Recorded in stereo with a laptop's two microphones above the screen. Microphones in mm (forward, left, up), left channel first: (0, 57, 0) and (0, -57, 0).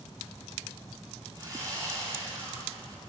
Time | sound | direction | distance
1.4 | sawing | 35° right (ahead or behind) | 10 m